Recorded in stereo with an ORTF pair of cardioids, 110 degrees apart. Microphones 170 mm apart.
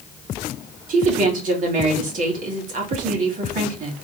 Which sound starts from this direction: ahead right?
A woman speaking, at 0.9 s.